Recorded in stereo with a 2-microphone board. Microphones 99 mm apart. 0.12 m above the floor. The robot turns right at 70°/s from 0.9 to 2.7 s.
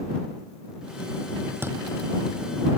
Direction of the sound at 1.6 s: 25° right (ahead or behind).